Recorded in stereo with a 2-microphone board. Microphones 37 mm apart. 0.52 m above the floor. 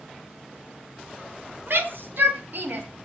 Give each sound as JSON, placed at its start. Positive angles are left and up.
{"t": 1.7, "sound": "a shout", "side_deg": -60, "distance_m": 3.5}